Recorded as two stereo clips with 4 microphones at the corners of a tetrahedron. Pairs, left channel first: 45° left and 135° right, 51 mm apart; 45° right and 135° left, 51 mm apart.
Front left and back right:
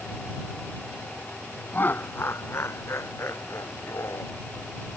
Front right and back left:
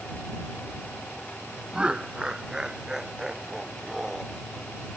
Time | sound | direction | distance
1.7 | laughter | 75° left | ?